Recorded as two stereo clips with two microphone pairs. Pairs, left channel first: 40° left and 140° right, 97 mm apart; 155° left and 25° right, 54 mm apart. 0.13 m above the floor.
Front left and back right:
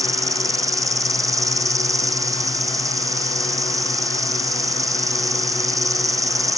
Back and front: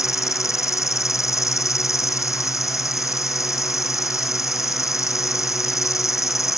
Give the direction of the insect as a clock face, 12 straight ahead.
7 o'clock.